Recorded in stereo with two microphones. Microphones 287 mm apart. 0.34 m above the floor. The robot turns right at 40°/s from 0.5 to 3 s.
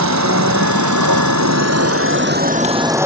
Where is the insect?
110° right; by 3.1 s 10° right.